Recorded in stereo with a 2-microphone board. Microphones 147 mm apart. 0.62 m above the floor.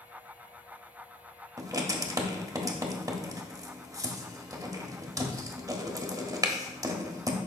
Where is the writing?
25° right (ahead or behind), 1.1 m.